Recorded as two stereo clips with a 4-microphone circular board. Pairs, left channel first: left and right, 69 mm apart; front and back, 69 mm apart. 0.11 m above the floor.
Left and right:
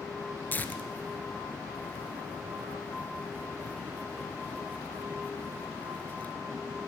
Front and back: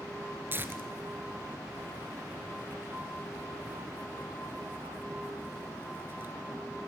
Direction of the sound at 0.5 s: 140° left.